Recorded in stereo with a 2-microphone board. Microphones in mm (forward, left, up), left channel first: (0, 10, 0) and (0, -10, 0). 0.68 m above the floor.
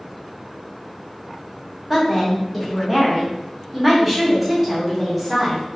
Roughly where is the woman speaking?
Centre.